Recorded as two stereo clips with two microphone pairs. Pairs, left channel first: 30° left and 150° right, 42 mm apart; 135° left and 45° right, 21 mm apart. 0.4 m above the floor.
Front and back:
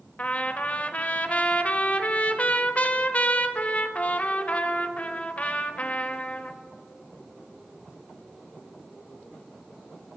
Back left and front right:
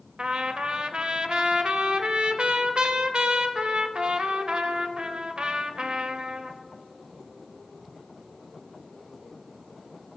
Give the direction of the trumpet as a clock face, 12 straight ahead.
1 o'clock.